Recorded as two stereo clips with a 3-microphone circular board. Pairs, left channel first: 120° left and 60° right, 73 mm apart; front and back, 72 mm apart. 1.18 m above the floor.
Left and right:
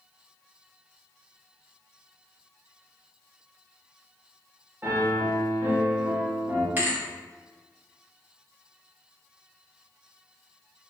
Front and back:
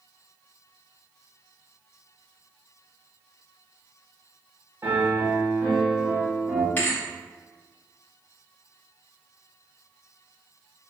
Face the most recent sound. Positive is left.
turn(degrees=-30)